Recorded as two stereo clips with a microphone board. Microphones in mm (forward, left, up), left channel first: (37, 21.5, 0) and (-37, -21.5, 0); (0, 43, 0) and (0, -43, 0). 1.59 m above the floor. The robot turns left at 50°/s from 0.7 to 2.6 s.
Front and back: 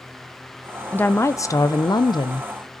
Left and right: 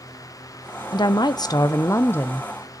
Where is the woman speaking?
95° left, 0.5 m; by 2.5 s 20° left, 0.5 m.